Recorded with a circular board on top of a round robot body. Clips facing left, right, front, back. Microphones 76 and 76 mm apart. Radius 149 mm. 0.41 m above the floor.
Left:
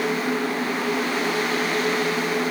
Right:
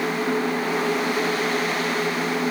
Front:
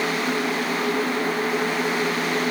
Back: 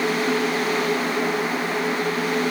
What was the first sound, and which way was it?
Only background noise.